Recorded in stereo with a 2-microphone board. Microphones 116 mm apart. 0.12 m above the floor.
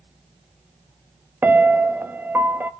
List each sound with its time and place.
1.4 s a piano: 20° right (ahead or behind), 0.6 m